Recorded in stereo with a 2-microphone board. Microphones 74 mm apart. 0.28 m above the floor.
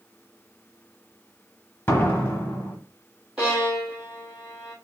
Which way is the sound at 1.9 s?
30° left (ahead or behind).